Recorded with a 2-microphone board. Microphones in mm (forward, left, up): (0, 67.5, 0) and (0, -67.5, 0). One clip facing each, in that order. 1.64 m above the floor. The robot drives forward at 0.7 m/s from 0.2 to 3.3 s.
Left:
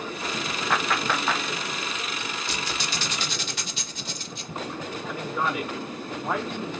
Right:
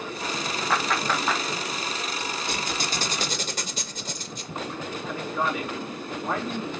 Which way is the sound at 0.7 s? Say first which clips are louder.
Even; centre (ahead or behind).